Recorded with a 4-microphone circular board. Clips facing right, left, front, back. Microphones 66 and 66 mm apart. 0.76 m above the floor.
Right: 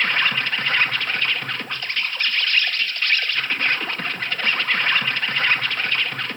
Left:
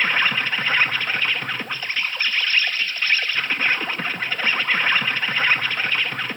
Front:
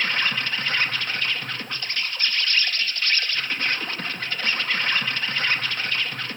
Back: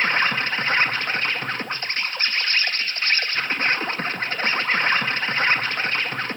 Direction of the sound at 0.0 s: 165° left.